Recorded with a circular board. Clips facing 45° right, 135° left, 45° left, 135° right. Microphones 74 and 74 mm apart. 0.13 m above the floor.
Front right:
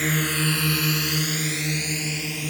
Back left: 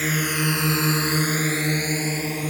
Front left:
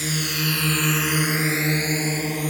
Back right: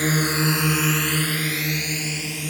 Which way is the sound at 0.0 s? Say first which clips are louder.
Back left 1 dB, back right 5 dB; 140° right.